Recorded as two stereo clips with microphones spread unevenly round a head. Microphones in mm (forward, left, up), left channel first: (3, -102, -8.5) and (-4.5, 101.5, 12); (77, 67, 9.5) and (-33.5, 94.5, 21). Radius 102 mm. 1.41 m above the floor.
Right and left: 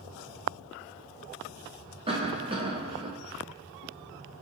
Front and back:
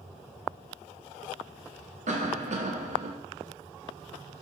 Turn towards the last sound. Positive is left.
turn(degrees=155)